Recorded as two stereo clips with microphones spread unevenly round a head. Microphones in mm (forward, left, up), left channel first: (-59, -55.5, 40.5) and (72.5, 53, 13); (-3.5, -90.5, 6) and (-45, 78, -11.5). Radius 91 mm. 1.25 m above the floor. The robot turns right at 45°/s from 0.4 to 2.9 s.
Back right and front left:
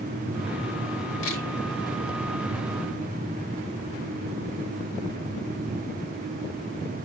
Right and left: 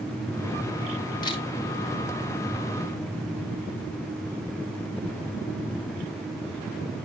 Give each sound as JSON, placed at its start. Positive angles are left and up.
{"t": 1.2, "sound": "a camera shutter", "azimuth_deg": -140, "distance_m": 3.0}